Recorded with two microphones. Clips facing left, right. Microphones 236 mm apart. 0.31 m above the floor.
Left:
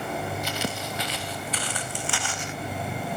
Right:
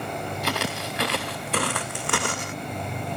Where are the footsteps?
85° right, 2.5 m; by 2.6 s 60° right (ahead or behind), 1.1 m.